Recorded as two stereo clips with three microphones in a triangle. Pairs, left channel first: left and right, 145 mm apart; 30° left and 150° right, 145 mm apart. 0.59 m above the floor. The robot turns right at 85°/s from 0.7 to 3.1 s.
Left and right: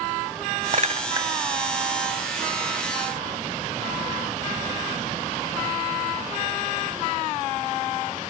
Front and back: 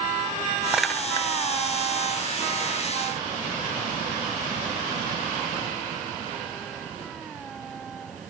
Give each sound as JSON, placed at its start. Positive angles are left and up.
{"t": 0.7, "sound": "a clink", "azimuth_deg": -70}